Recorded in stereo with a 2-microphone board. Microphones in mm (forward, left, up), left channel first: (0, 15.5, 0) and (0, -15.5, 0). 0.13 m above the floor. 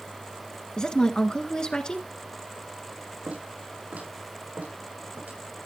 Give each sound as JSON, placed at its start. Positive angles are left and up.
{"t": 0.8, "sound": "a woman speaking", "side_deg": 30, "distance_m": 1.6}
{"t": 3.3, "sound": "footsteps", "side_deg": -65, "distance_m": 7.0}